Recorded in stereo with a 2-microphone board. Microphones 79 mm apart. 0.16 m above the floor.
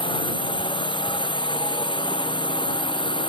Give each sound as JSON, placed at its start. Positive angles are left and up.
{"t": 0.0, "sound": "a drone", "side_deg": 75}